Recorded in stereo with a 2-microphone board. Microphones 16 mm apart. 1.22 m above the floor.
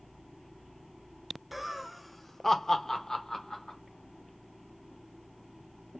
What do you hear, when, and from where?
1.5 s laughter: 10° right (ahead or behind), 0.7 m; by 3.8 s 45° left (ahead or behind), 1.1 m